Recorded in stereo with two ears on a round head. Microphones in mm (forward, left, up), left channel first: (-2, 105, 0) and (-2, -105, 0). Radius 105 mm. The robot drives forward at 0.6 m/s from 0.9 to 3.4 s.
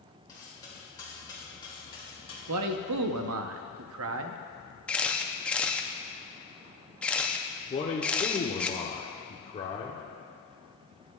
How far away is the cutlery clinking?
About 3.5 m.